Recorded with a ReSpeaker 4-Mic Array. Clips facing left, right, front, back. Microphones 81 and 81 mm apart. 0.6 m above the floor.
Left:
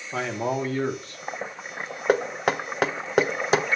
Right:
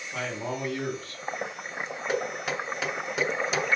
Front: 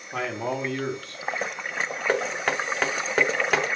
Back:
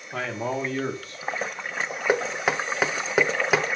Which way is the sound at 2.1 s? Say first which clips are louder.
Left 8 dB, back 2 dB; 100° left.